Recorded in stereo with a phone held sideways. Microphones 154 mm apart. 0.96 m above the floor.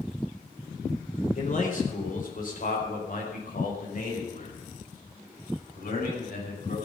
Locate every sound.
1.4 s a man speaking: 55° left (ahead or behind), 3.5 m; by 6.8 s 70° left (ahead or behind), 7.5 m